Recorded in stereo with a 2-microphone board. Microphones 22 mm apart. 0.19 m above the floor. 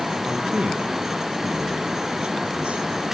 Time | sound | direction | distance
0.2 | a man speaking | 70° right (ahead or behind) | 5 m